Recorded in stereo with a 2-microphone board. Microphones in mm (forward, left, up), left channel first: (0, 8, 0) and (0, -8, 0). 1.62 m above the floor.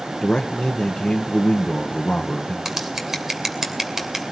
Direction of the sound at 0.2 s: 60° left (ahead or behind).